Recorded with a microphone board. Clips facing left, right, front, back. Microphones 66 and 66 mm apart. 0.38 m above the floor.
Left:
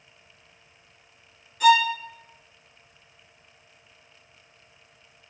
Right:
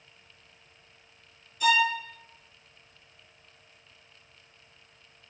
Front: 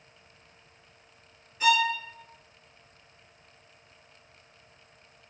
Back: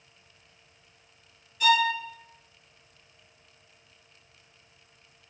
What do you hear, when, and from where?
1.6 s a violin: 55° left, 1.1 m